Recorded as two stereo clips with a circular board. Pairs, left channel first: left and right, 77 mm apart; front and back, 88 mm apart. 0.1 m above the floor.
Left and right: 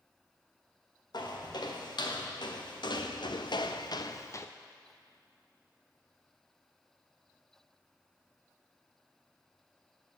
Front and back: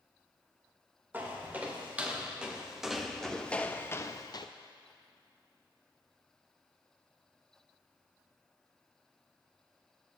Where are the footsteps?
110° left, 2.5 m; by 4.5 s 35° left, 0.7 m.